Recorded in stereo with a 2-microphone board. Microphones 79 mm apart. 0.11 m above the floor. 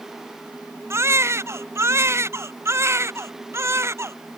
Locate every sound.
0.9 s a baby crying: 35° right (ahead or behind)